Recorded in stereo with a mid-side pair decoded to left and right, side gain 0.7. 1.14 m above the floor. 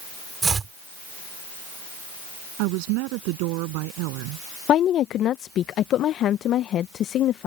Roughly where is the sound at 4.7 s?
Ahead left.